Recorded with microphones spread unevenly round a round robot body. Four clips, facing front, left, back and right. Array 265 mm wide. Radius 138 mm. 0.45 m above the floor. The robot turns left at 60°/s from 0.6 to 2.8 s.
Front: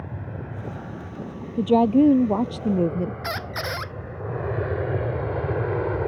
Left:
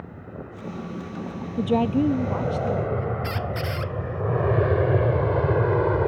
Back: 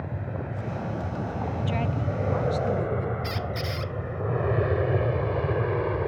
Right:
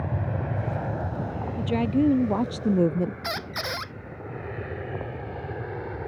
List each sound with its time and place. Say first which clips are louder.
0.0 s an aircraft: right 7 dB, back 2 dB; 95° right; by 6.1 s 75° left
1.6 s a woman speaking: left 2 dB, front 18 dB; 25° left; by 3.1 s 50° right
3.2 s a squeak: left 3 dB, front 2 dB; 25° right